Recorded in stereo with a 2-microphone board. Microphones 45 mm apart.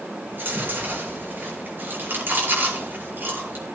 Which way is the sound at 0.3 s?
50° right (ahead or behind).